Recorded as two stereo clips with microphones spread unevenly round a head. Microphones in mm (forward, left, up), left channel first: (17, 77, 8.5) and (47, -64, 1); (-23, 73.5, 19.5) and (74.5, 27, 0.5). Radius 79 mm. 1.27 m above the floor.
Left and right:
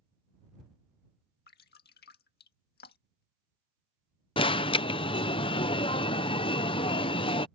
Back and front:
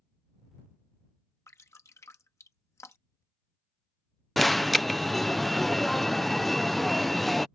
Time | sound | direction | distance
1.5 | dripping | 90° left | ?
4.4 | an alarm | 55° left | ?